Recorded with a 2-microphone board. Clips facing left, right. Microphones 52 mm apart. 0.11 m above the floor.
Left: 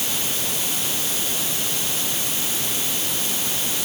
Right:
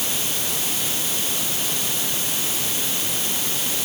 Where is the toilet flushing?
No toilet flushing in this recording.